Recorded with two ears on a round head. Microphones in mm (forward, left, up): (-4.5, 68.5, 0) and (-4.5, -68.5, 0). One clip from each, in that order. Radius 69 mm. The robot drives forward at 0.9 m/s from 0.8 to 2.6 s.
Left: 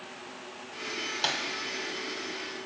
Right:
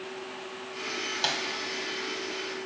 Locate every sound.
1.2 s a snare drum: 5° right (ahead or behind), 2.5 m